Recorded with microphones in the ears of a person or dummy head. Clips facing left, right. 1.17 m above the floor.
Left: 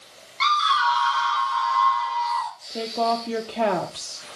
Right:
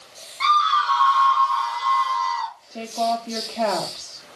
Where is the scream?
45° left (ahead or behind), 1.6 m; by 2.5 s 25° right (ahead or behind), 1.2 m.